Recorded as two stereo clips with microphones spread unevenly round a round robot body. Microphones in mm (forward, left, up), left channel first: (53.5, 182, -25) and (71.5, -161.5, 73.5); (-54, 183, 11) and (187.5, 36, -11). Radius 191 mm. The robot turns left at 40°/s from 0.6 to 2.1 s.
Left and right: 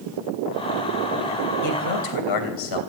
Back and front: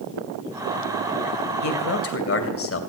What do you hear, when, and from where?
1.6 s a man speaking: 125° left, 3 m; by 2.8 s 110° left, 3 m